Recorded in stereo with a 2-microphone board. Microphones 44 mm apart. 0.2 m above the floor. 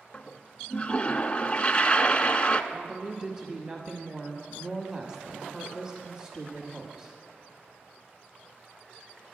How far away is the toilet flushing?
About 0.5 m.